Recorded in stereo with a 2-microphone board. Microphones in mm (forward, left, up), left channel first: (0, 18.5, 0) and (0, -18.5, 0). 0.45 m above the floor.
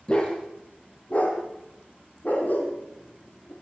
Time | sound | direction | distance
0.1 | a dog barking | 25° left (ahead or behind) | 6 m